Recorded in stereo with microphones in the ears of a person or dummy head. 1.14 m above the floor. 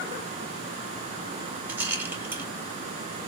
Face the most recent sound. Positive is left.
turn(degrees=-10)  # may be behind; listen again after turning